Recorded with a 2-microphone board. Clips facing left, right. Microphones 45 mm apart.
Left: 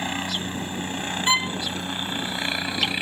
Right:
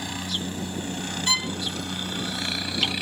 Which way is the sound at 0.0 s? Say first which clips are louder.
Left 3 dB; 35° left (ahead or behind).